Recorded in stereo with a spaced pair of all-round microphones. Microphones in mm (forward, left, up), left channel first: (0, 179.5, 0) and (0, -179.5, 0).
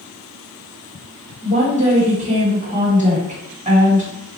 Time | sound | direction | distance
1.4 | a woman speaking | 20° right (ahead or behind) | 1.8 m